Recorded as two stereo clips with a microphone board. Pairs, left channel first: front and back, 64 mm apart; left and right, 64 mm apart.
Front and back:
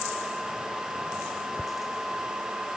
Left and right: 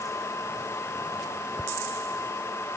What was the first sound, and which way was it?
Only background noise.